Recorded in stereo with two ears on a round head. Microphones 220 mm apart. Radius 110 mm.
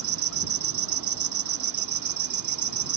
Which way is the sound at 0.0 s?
90° right.